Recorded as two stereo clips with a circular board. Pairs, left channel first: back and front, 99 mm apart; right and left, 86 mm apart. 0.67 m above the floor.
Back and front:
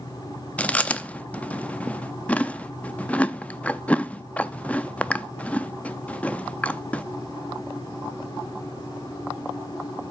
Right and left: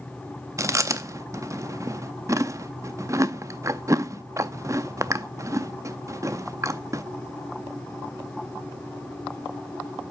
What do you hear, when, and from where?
0.6 s chewing: 110° left, 0.5 m